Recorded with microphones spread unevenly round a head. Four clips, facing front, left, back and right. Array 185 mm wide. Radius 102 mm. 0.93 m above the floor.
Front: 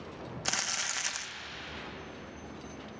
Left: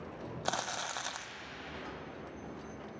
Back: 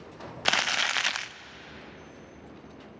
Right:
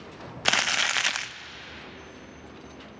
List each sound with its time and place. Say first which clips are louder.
0.5 s crumpling: right 9 dB, back 11 dB; 105° right, 0.5 m